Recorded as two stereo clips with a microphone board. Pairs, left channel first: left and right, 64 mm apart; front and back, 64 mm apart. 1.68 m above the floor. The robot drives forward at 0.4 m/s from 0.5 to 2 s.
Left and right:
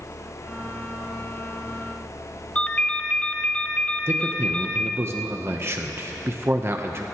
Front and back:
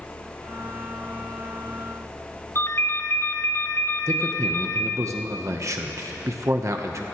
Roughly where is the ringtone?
Ahead left.